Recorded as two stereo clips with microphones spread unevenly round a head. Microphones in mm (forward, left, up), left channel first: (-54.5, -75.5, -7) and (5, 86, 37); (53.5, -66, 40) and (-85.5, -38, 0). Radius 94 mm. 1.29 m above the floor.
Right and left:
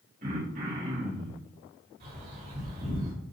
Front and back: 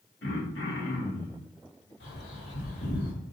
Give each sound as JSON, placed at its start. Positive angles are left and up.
{"t": 0.2, "sound": "throat clearing", "azimuth_deg": 20, "distance_m": 1.6}
{"t": 2.0, "sound": "a bird", "azimuth_deg": 25, "distance_m": 3.5}